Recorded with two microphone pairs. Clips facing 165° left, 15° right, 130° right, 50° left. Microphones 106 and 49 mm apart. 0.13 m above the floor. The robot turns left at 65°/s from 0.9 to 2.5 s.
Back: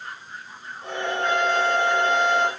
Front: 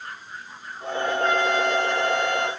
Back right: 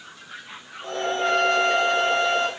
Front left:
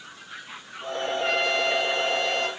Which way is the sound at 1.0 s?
90° right.